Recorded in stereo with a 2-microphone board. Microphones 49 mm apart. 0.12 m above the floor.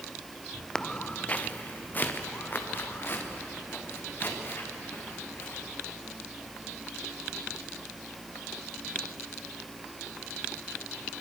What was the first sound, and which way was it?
Footsteps, 15° left (ahead or behind).